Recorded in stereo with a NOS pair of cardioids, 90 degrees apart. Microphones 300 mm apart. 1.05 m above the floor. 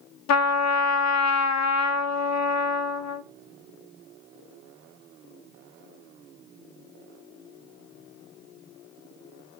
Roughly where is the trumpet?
Ahead left.